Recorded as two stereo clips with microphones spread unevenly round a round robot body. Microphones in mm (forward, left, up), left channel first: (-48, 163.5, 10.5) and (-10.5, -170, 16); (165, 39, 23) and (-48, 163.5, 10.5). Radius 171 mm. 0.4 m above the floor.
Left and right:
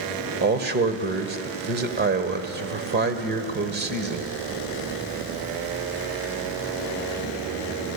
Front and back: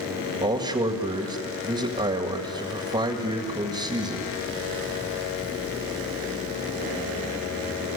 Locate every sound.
0.4 s a man speaking: 140° right, 1.7 m